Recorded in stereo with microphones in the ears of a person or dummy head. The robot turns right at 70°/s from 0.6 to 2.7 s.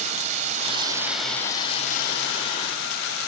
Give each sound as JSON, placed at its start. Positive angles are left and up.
{"t": 0.0, "sound": "running water", "azimuth_deg": -45}